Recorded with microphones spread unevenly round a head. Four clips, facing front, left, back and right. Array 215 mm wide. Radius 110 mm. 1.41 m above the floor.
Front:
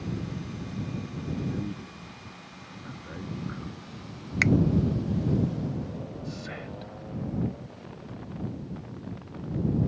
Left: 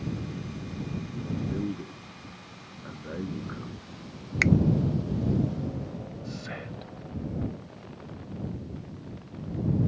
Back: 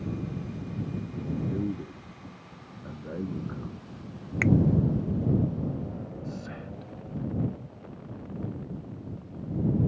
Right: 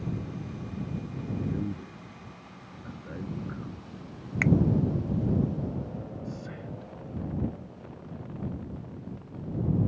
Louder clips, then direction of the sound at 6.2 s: Left 1 dB, even; 95° left.